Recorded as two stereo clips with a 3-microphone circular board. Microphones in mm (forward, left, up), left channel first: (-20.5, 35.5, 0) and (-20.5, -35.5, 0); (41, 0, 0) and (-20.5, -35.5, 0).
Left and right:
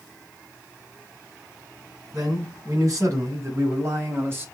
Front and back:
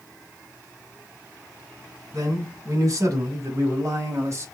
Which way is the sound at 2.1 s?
115° right.